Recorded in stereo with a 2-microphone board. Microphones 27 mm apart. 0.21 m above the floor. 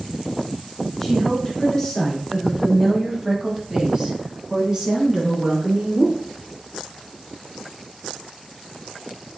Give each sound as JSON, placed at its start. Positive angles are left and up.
{"t": 1.0, "sound": "a woman speaking", "side_deg": 10, "distance_m": 1.6}